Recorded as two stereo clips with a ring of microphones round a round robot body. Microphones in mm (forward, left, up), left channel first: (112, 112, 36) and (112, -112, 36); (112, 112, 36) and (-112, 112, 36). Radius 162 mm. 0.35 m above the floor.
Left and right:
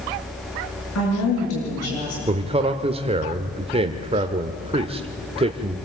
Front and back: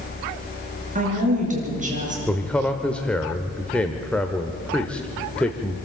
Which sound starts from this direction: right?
A man speaking, at 2.3 s.